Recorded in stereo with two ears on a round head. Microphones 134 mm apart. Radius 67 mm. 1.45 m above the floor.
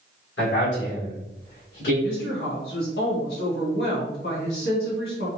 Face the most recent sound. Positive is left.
turn(degrees=70)  # may be behind; listen again after turning